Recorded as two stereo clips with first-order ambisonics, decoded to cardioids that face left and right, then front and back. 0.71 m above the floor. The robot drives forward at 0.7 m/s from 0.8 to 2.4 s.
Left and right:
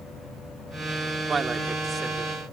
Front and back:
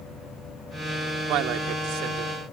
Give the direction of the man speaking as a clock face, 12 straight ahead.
5 o'clock.